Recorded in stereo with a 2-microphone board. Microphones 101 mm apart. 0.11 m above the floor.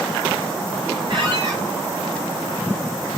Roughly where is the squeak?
Right.